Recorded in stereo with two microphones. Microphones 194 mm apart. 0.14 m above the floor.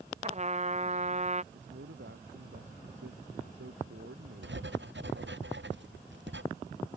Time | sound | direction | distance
0.2 | a trumpet | 35° right (ahead or behind) | ?
1.5 | a man speaking | 85° right | ?
4.4 | writing | 75° right (ahead or behind) | ?